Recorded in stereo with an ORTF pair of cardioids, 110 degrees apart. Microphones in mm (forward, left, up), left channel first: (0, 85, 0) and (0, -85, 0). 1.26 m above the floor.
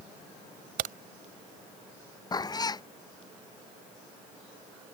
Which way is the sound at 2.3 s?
25° left.